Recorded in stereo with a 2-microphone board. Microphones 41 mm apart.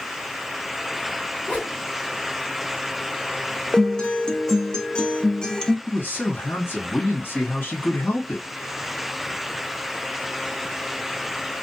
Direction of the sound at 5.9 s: 65° left (ahead or behind).